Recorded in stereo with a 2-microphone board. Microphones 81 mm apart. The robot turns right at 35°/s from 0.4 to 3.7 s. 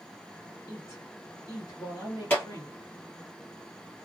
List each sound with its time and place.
0.7 s a woman speaking: 55° left, 2.0 m; by 2.8 s 130° left, 2.0 m
2.3 s a clap: 15° left (ahead or behind), 1.9 m